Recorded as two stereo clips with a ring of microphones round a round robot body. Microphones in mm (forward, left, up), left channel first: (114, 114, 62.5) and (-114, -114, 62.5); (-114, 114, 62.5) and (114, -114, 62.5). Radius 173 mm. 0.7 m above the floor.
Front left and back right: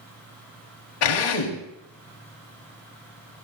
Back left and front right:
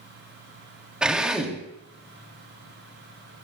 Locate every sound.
1.0 s a drill: 40° left, 3 m